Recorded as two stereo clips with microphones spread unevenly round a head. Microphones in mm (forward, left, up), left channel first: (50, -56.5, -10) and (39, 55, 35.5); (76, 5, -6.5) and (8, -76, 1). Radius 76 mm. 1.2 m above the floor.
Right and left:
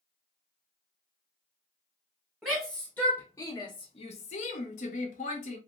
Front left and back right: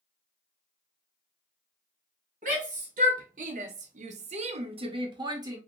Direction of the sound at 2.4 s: 170° right.